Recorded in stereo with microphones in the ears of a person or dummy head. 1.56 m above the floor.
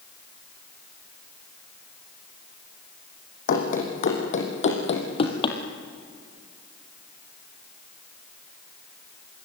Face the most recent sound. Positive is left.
turn(degrees=30)  # may be behind; listen again after turning